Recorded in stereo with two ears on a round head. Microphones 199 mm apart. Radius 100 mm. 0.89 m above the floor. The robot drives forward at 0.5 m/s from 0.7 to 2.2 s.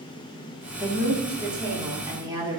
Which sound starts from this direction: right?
A woman speaking, at 0.8 s.